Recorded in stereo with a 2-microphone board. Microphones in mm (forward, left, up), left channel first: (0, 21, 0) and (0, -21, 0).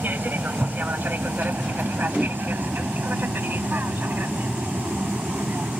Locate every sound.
0.0 s an aircraft: 50° right (ahead or behind)
2.1 s a whoosh: 10° right (ahead or behind)